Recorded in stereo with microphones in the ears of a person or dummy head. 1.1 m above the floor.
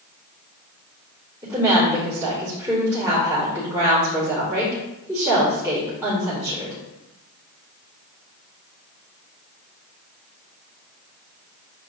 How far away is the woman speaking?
About 4 m.